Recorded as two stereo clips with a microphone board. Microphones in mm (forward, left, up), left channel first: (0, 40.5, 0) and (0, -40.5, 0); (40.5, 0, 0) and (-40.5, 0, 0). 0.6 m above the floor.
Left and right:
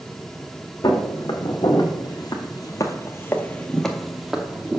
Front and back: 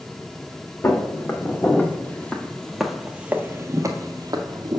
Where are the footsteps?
55° left, 1.6 m; by 4.8 s 160° right, 1.1 m.